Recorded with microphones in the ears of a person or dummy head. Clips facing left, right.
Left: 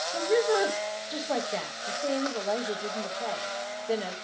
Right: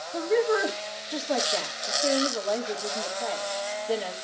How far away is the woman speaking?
About 1.9 m.